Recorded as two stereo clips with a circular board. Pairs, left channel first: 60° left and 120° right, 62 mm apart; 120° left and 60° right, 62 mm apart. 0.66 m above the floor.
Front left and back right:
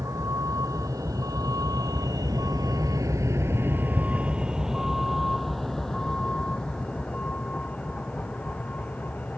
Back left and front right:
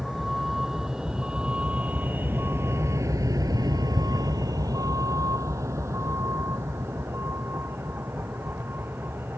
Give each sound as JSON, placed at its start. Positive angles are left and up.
{"t": 0.0, "sound": "a vehicle", "azimuth_deg": -150}